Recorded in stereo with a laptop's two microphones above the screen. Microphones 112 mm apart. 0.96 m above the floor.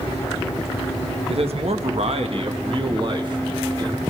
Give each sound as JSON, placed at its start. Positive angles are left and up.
{"t": 1.3, "sound": "a man speaking", "side_deg": -60, "distance_m": 1.0}